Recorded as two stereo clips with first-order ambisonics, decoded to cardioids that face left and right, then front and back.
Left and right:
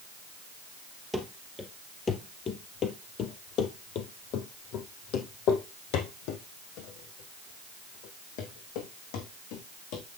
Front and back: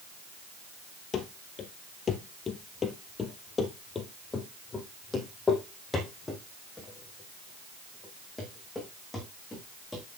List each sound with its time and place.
1.1 s running footsteps: 10° left, 1.8 m; by 10.0 s 85° left, 5 m